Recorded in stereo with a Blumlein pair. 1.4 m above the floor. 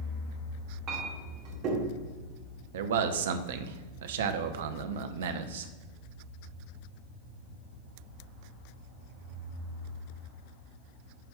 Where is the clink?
40° right, 2.5 m.